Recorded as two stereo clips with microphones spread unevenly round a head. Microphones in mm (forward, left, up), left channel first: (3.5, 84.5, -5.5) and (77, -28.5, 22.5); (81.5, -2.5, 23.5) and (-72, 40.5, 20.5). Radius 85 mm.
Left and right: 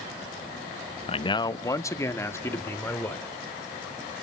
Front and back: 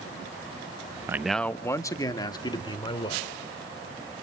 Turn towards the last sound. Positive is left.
turn(degrees=45)